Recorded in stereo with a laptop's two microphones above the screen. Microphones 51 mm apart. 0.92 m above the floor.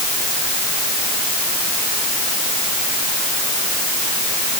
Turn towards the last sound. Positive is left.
No sound to turn to.